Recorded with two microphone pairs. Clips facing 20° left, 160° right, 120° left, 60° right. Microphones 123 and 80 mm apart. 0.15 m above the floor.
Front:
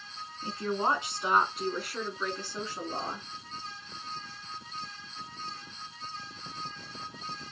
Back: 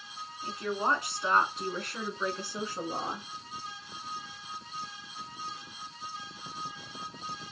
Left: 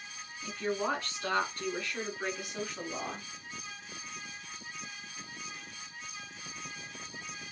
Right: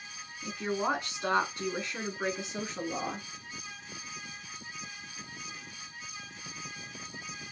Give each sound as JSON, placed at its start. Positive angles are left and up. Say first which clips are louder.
{"t": 0.4, "sound": "a woman speaking", "louder": "front 1 dB, right 1 dB", "azimuth_deg": 5, "distance_m": 1.3}